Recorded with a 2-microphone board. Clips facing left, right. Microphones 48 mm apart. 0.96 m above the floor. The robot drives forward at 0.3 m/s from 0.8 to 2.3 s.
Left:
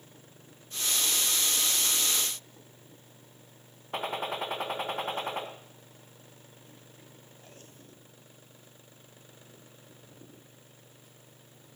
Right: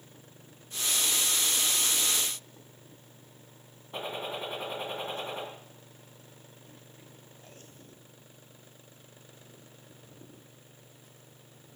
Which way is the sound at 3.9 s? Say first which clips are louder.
Left 3 dB; 80° left.